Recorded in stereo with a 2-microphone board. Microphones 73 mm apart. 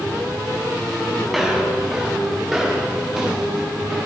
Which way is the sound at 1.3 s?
5° right (ahead or behind).